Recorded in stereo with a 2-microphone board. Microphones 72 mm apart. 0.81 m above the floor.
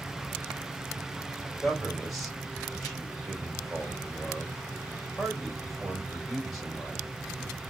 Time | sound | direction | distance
1.4 | a man speaking | centre (ahead or behind) | 2 m